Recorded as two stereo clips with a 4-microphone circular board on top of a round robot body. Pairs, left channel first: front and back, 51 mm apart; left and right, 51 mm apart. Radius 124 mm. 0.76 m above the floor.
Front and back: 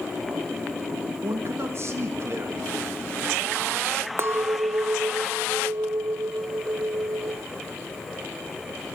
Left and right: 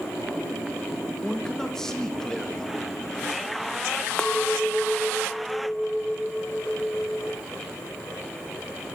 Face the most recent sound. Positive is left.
turn(degrees=165)